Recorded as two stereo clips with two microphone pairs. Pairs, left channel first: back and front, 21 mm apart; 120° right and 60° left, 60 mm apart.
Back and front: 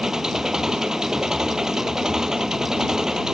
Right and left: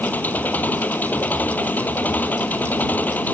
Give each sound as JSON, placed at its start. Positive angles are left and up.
{"t": 0.0, "sound": "an engine running", "azimuth_deg": -60}